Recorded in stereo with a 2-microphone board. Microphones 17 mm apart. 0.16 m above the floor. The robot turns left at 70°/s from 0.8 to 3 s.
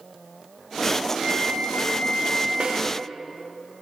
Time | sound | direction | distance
1.1 | a flute | 120° left | 3.5 m
2.6 | a snare drum | 75° right (ahead or behind) | 7 m